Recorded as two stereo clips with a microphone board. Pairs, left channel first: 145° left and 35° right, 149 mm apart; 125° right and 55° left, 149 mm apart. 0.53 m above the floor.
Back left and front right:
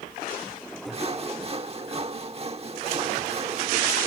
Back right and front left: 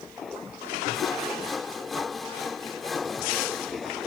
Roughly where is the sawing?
Ahead right.